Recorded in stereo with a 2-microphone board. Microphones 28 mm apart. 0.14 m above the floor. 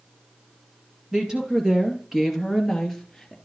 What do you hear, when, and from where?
1.1 s a woman speaking: 25° right (ahead or behind), 3 m; by 3.4 s 5° left (ahead or behind), 2.5 m